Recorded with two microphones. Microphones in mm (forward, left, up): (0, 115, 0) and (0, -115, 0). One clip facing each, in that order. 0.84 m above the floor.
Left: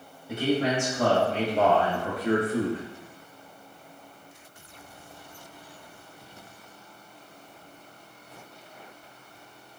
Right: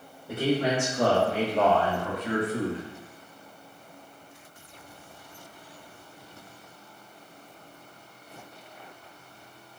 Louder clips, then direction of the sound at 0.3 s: Even; 55° right (ahead or behind).